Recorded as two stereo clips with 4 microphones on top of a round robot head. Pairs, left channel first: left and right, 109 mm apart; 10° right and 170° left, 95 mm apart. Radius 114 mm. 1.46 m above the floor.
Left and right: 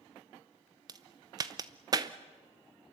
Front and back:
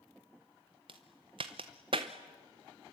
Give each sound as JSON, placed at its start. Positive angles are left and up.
{"t": 0.9, "sound": "a crack", "azimuth_deg": -140, "distance_m": 0.6}